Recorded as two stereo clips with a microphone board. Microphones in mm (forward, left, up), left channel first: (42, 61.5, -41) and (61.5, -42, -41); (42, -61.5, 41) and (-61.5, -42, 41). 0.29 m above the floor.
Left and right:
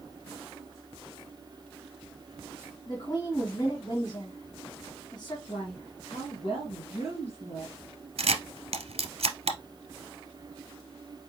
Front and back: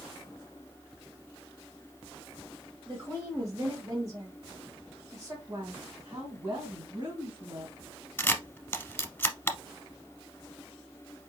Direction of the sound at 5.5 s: 110° left.